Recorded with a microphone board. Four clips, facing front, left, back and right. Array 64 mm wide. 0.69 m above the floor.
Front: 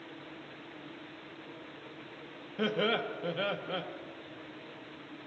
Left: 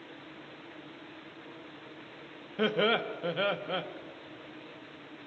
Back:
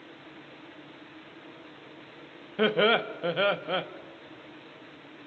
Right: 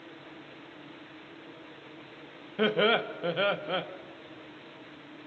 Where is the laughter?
165° right, 0.8 m.